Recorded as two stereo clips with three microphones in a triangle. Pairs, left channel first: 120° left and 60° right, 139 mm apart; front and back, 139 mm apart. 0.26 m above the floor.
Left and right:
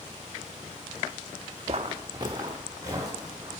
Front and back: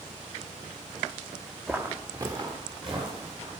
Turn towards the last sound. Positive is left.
turn(degrees=-130)